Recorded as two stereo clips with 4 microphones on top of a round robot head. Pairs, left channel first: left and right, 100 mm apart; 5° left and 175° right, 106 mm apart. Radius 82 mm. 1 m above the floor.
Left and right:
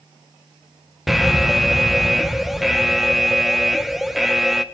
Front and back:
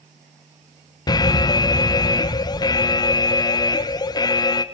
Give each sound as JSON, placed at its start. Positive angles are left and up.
{"t": 1.1, "sound": "an alarm", "azimuth_deg": -5, "distance_m": 1.5}